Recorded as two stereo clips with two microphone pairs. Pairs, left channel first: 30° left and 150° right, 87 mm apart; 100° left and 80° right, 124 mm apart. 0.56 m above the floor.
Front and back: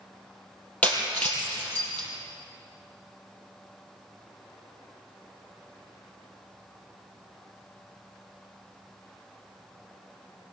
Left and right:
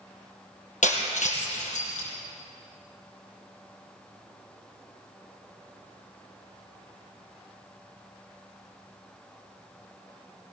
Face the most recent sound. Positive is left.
turn(degrees=105)